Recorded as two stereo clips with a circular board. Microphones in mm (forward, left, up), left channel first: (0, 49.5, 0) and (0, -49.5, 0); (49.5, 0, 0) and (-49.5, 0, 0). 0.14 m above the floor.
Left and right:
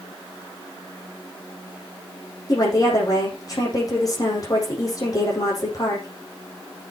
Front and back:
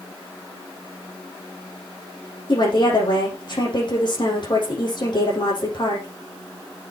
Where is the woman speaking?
35° left, 6.5 m.